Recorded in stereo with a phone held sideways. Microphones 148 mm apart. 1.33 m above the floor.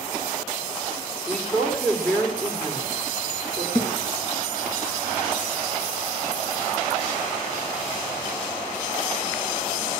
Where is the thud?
40° left (ahead or behind), 6 m.